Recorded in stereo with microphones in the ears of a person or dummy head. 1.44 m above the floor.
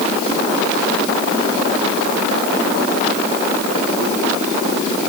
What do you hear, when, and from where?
Only background noise.